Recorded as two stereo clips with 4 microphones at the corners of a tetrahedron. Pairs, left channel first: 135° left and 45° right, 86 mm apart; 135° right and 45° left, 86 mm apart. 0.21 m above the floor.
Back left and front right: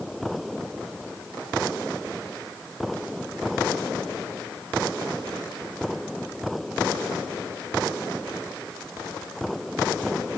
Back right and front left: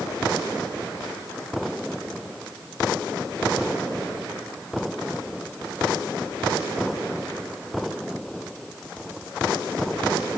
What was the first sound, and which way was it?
Only background noise.